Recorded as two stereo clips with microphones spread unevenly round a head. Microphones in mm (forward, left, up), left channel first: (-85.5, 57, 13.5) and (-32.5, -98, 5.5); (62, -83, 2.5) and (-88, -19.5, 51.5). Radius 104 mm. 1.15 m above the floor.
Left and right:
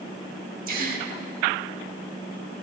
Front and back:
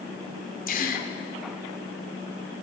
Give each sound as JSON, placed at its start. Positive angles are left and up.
{"t": 0.7, "sound": "a gasp", "azimuth_deg": -60, "distance_m": 1.0}